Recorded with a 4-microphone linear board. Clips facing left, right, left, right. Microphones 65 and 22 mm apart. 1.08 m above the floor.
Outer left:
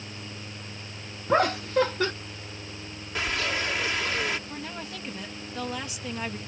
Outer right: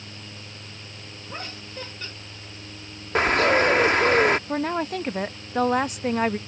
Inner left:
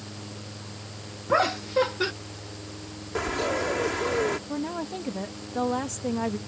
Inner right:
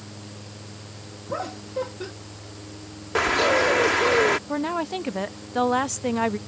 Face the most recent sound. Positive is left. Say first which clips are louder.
# outer right 12 dB, inner right 5 dB
turn(degrees=-45)  # may be behind; listen again after turning